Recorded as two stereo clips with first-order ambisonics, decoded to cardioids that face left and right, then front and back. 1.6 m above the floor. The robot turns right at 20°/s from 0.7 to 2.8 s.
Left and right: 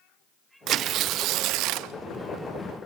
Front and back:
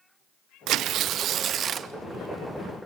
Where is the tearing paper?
140° right, 0.6 m; by 1.9 s 115° right, 0.6 m.